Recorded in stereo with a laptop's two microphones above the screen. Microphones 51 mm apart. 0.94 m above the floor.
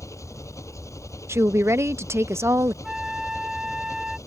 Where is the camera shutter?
I don't hear a camera shutter.